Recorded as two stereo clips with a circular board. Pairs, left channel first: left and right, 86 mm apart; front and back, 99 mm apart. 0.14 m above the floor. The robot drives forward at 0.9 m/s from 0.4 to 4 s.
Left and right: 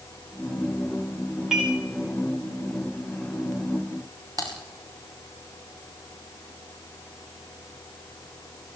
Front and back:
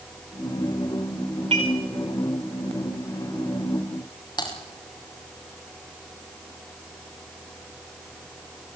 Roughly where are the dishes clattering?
Behind.